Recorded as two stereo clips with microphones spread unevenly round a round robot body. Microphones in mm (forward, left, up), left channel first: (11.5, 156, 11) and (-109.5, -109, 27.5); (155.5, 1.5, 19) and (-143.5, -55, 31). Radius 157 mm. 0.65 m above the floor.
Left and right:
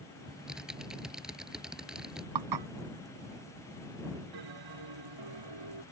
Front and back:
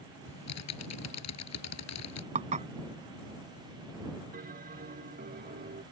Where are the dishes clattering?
100° right.